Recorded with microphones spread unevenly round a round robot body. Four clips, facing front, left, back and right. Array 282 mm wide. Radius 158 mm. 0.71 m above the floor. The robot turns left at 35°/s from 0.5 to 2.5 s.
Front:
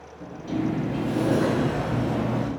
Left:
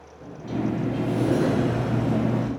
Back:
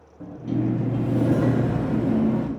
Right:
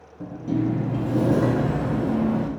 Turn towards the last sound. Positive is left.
turn(degrees=-175)